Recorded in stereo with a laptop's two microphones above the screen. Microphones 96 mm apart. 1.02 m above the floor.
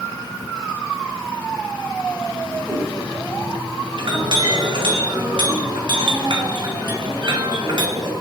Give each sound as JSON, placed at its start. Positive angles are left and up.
{"t": 2.6, "sound": "a cat meowing", "side_deg": -5, "distance_m": 1.6}
{"t": 4.0, "sound": "a clink", "side_deg": -55, "distance_m": 1.0}